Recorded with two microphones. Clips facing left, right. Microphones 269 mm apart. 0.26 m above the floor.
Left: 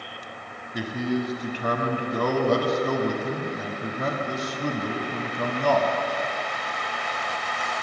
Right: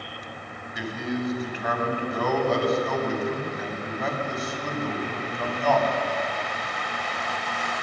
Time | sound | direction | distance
0.7 | a man speaking | 45° left (ahead or behind) | 1.8 m